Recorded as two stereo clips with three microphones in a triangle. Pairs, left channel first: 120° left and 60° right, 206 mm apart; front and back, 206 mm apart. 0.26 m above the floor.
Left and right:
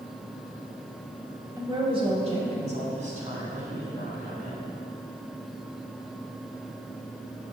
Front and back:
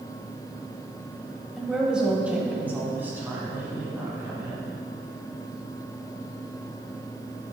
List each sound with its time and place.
1.6 s a woman speaking: 90° right, 0.9 m; by 4.7 s 105° right, 2.5 m